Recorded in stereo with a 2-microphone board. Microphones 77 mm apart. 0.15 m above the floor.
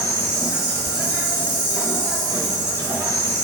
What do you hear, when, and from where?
0.0 s an insect: 55° right (ahead or behind), 0.8 m